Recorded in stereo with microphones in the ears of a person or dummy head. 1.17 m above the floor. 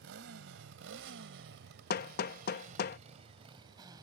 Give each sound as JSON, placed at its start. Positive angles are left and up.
{"t": 0.0, "sound": "a motorcycle", "side_deg": -75}
{"t": 1.9, "sound": "hammering", "side_deg": 50}